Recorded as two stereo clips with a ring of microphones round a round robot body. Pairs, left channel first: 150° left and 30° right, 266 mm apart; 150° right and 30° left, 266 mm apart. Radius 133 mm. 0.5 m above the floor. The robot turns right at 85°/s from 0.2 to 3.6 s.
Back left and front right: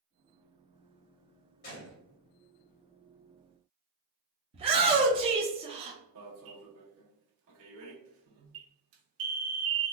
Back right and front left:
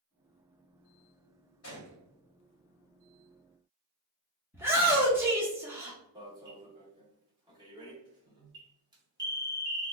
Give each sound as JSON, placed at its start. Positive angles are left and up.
{"t": 1.6, "sound": "a gunshot", "azimuth_deg": -160, "distance_m": 1.8}
{"t": 4.5, "sound": "a shout", "azimuth_deg": -35, "distance_m": 0.7}
{"t": 6.2, "sound": "an alarm", "azimuth_deg": -40, "distance_m": 1.1}